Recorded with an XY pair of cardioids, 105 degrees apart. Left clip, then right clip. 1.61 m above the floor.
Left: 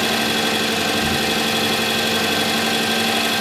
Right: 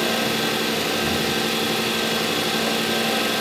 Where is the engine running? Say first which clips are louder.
Left 3 dB; 70° left, 6 m.